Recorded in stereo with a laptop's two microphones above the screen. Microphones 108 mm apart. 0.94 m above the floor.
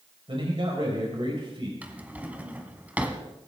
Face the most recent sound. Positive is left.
turn(degrees=-15)  # may be behind; listen again after turning